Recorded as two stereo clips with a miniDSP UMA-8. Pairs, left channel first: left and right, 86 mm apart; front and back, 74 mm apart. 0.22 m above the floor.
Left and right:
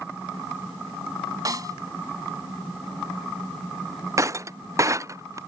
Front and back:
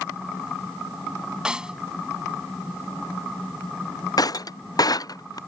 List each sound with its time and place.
1.4 s a snare drum: 105° right
4.2 s breaking glass: 35° right